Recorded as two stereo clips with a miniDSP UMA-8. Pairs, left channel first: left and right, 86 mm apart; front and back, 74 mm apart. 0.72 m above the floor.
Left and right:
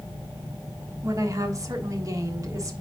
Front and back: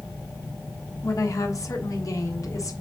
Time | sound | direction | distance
1.0 | a woman speaking | 40° right | 1.2 m